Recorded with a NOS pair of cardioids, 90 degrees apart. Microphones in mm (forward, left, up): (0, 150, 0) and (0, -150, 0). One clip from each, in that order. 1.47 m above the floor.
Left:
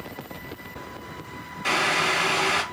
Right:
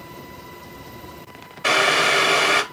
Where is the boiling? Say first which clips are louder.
Right 5 dB; 65° right, 1.0 m.